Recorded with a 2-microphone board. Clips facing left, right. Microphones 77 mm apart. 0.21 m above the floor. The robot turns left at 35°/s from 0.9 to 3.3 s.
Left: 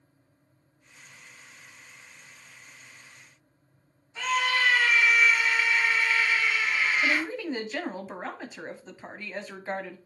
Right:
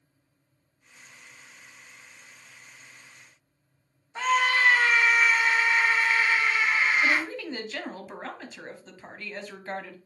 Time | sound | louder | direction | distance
4.2 | a scream | right 3 dB | 45° right (ahead or behind) | 1.7 m
7.0 | a woman speaking | right 1 dB | 15° left (ahead or behind) | 1.2 m